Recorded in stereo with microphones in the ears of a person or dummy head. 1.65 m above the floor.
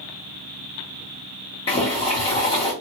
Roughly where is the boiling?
Left.